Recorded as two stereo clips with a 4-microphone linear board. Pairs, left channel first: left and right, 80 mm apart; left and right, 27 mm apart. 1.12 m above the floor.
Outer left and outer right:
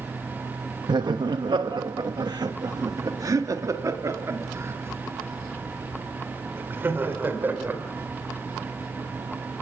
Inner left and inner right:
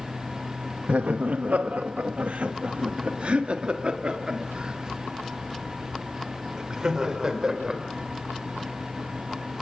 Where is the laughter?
75° right (ahead or behind), 1.0 m; by 7.8 s 25° right (ahead or behind), 3.5 m.